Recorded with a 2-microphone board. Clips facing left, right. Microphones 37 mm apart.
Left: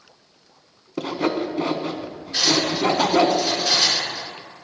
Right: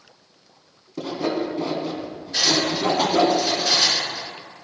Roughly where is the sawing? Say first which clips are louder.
Left 1 dB; left.